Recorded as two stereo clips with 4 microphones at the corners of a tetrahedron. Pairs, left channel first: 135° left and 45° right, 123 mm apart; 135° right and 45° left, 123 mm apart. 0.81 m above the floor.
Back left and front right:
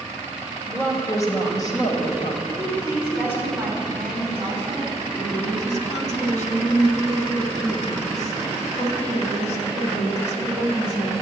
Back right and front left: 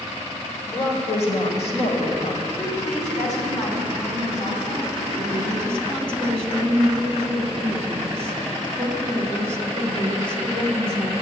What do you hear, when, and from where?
0.7 s a woman speaking: 155° right, 3.5 m; by 2.4 s 170° right, 4 m
2.5 s a woman speaking: 120° right, 6 m
5.2 s a woman speaking: 150° left, 2.5 m